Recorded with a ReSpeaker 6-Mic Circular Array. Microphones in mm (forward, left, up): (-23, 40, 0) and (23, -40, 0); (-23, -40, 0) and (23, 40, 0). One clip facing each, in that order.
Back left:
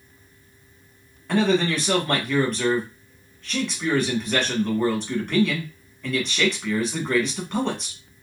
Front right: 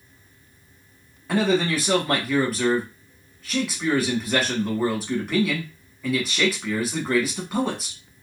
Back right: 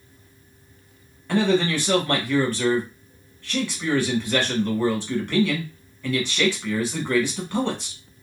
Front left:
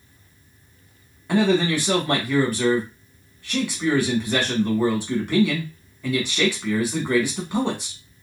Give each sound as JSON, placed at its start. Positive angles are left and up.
{"t": 1.3, "sound": "a man speaking", "azimuth_deg": 15, "distance_m": 1.0}